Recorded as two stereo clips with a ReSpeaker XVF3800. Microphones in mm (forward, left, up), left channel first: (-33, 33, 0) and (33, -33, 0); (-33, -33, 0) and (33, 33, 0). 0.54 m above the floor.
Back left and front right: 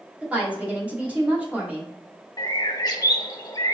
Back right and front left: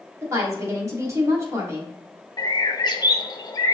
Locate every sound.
0.2 s a woman speaking: 20° left, 1.1 m
2.4 s a bird: straight behind, 0.5 m